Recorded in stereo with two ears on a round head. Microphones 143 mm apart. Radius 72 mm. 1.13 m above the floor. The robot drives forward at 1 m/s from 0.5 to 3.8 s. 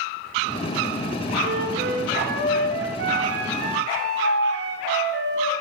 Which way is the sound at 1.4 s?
60° right (ahead or behind).